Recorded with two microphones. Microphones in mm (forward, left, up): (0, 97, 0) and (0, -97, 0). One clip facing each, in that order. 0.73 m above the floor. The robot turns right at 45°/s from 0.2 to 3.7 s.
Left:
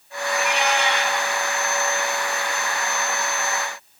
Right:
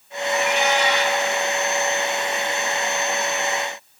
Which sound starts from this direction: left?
A cat meowing, at 0.3 s.